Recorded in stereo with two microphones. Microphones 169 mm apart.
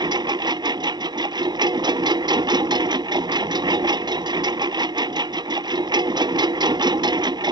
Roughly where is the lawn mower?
Right.